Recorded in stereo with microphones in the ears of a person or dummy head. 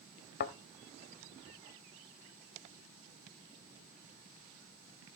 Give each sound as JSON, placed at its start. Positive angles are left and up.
{"t": 0.4, "sound": "a thud", "side_deg": 35, "distance_m": 1.0}